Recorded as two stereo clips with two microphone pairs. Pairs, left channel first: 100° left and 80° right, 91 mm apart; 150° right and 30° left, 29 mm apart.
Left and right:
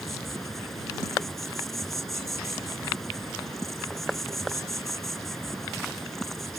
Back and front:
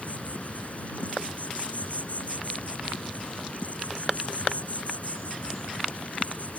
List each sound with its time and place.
0.0 s an insect: 170° right